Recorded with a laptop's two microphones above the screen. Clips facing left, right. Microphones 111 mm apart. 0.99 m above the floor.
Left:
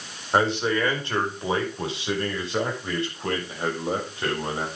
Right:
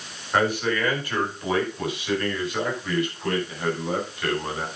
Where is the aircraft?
No aircraft in this recording.